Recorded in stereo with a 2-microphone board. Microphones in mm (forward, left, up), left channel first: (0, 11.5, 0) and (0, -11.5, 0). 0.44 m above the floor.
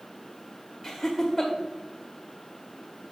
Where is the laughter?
10° right (ahead or behind), 1.6 m.